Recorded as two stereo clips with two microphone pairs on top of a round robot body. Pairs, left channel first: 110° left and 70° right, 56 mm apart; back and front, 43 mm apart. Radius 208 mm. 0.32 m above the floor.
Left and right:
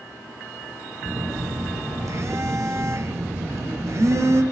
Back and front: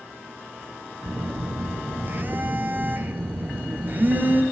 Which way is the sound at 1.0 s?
40° right.